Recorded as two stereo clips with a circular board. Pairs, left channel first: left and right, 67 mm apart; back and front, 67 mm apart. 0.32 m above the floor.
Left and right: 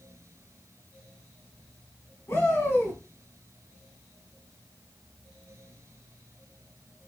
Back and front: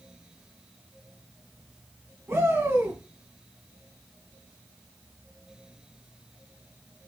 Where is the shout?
50° left, 3 m.